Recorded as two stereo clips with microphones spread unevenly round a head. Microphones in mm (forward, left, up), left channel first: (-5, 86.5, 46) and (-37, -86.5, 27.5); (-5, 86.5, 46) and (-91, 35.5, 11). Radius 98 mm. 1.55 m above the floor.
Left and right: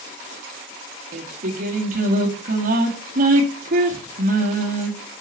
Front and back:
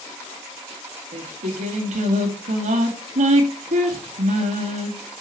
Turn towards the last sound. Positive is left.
turn(degrees=-145)